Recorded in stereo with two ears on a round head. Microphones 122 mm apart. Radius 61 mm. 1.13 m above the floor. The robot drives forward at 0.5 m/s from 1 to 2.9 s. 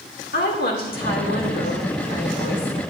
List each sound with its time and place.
0.3 s a woman speaking: 75° left (ahead or behind), 2 m; by 2.7 s 70° left (ahead or behind), 2.5 m